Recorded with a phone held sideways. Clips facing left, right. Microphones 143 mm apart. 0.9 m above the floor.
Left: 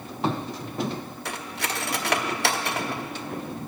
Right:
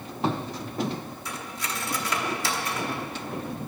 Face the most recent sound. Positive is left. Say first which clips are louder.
# left 3 dB
turn(degrees=70)  # may be behind; listen again after turning